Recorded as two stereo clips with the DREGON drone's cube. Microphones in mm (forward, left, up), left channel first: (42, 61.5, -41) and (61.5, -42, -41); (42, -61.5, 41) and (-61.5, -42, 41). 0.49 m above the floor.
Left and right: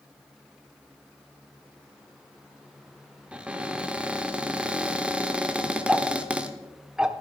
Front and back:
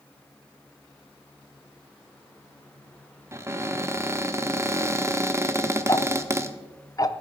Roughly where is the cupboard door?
Behind right.